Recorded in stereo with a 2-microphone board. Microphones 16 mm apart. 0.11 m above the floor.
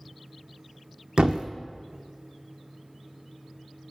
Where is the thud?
65° right (ahead or behind), 0.7 m.